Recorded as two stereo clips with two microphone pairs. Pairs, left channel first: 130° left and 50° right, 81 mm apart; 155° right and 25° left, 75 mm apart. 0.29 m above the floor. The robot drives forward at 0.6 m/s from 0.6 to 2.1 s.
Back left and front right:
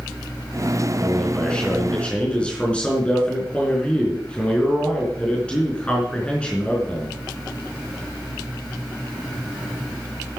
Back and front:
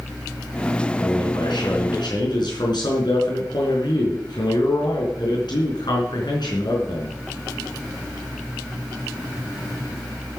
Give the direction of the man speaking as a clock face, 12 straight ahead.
5 o'clock.